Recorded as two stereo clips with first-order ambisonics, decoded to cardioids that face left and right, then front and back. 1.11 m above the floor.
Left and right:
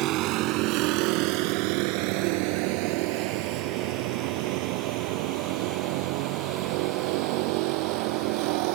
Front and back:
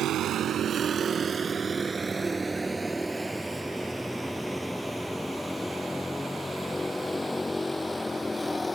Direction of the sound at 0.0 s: 130° right.